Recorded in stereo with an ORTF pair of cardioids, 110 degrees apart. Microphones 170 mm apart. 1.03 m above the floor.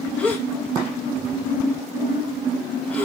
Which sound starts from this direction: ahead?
A gasp, at 0.2 s.